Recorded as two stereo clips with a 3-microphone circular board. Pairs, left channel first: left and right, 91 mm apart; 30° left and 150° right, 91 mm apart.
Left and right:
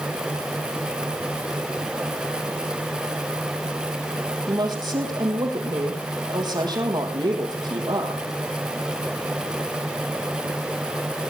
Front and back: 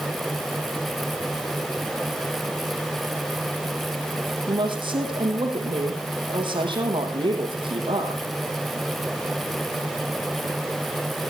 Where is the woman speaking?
125° right, 4.5 m.